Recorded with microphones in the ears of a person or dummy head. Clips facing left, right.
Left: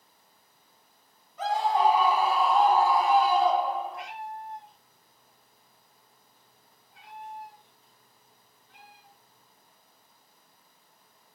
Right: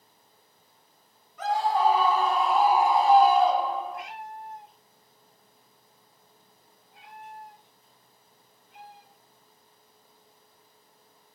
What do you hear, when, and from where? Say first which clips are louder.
1.4 s a scream: even; 30° left (ahead or behind), 1.2 m; by 4.0 s 75° right (ahead or behind), 0.8 m
3.9 s a cat meowing: even; 25° right (ahead or behind), 1.4 m